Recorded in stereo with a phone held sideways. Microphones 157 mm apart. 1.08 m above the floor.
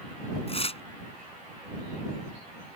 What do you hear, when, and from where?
0.5 s tearing paper: 45° left (ahead or behind)